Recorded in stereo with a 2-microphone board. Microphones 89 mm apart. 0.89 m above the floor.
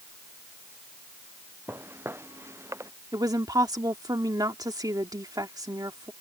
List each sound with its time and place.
1.7 s footsteps: 25° right (ahead or behind); by 2.9 s 30° right (ahead or behind)
3.1 s a woman speaking: 45° right (ahead or behind)